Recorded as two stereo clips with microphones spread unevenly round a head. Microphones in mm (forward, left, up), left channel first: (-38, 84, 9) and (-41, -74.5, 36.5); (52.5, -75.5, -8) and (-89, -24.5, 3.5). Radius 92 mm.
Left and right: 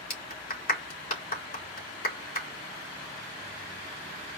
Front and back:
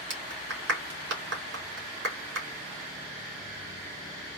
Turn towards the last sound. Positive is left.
turn(degrees=125)